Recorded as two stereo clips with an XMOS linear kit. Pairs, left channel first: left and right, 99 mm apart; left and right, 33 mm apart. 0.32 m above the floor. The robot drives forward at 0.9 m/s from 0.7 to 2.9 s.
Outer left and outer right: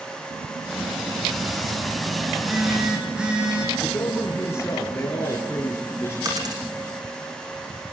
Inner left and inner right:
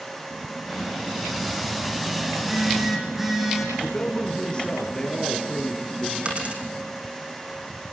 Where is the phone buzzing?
10° right (ahead or behind), 6.5 m.